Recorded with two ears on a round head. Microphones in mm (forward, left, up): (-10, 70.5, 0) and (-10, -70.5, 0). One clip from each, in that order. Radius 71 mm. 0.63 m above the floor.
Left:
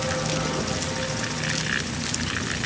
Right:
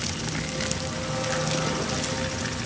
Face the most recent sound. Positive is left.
No sound to turn to.